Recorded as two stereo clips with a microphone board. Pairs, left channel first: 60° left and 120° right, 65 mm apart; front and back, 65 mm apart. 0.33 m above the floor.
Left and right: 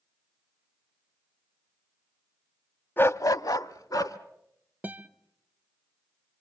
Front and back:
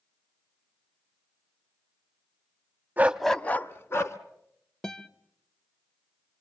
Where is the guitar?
75° right, 0.7 m.